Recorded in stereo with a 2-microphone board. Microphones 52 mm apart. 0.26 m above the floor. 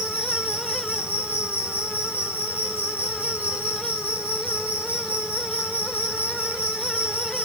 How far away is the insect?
About 3.5 m.